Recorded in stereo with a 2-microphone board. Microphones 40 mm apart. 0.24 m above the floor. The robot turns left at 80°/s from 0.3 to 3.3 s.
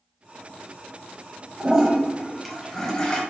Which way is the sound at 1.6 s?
20° right (ahead or behind).